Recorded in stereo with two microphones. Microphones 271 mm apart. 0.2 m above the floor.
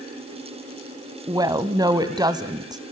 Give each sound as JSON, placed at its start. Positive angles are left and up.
{"t": 1.3, "sound": "a woman speaking", "side_deg": -15, "distance_m": 1.0}